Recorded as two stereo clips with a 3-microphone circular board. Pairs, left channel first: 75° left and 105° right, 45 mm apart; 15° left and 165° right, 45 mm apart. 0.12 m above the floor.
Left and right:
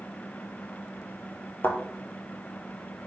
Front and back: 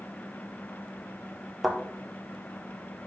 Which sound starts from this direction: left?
A thud, at 1.6 s.